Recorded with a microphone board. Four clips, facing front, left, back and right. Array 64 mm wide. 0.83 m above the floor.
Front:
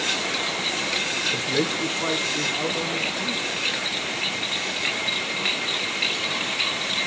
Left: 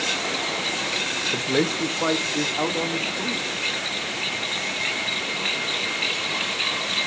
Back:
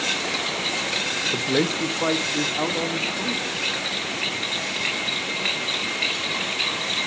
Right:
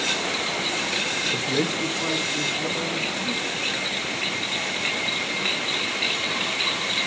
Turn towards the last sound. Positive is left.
turn(degrees=125)